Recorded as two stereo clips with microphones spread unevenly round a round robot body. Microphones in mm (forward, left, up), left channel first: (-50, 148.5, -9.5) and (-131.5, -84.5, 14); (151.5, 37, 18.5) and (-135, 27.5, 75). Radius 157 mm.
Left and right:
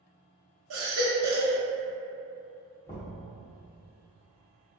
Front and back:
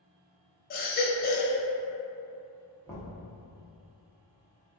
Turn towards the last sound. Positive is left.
turn(degrees=50)